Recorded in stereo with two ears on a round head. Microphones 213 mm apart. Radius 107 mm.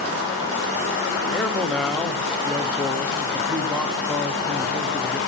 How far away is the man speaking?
About 0.8 m.